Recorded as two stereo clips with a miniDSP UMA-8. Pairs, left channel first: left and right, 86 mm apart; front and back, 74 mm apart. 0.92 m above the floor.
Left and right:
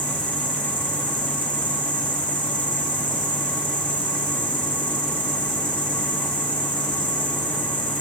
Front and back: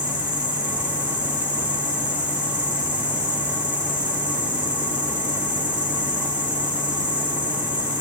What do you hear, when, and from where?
0.0 s an insect: 105° left, 3 m